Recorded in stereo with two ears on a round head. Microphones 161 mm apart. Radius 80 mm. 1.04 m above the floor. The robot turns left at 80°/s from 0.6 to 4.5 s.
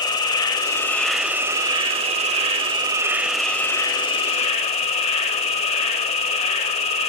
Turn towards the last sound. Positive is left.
turn(degrees=90)